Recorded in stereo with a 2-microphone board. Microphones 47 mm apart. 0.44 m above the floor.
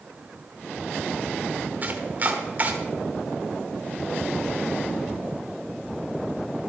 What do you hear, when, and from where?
1.8 s chopping: 35° right (ahead or behind), 1.2 m